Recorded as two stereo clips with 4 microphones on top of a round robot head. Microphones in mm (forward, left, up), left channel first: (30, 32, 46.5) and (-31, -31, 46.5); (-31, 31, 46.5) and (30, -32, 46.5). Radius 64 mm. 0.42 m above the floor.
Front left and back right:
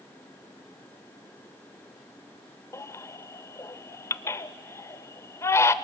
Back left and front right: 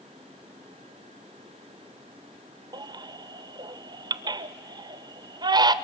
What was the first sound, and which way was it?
A baby crying, 10° right.